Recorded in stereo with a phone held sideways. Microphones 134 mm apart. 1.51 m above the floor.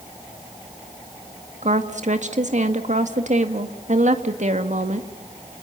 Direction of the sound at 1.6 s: 65° right (ahead or behind).